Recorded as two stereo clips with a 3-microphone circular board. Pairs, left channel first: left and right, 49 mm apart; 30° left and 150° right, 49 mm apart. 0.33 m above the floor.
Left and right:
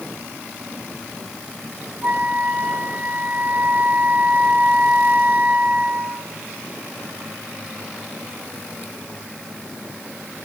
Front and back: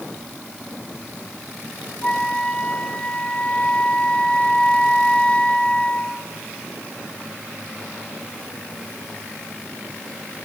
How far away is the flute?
About 1.6 m.